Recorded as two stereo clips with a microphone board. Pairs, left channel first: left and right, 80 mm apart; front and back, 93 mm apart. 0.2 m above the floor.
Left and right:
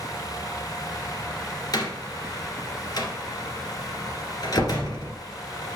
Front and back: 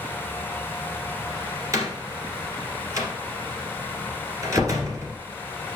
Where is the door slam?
125° left, 2 m.